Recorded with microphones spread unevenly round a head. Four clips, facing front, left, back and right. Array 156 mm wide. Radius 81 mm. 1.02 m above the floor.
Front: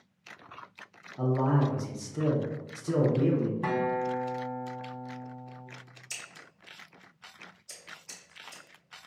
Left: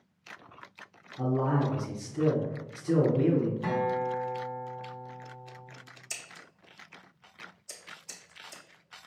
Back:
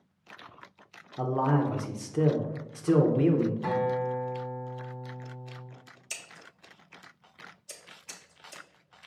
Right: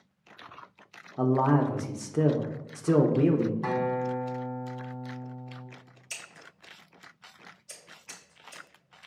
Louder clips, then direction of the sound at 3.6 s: Right 1 dB, back 1 dB; 35° right.